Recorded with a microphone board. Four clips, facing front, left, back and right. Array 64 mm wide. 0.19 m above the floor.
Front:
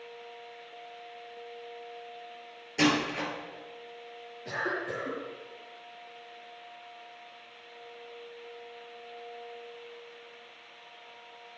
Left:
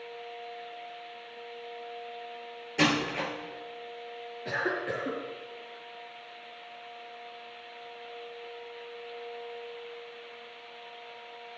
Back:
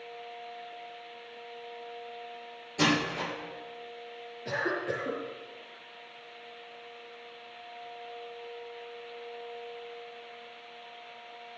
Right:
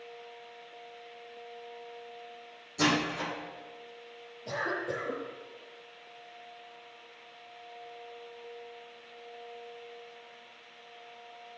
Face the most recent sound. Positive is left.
turn(degrees=100)